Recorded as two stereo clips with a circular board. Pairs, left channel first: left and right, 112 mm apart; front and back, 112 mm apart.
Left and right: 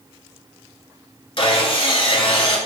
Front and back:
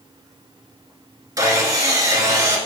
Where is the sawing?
125° left, 1.0 m.